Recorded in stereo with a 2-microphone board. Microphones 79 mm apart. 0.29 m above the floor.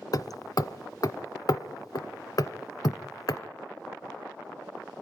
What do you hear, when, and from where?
0.1 s hammering: 55° left (ahead or behind), 0.7 m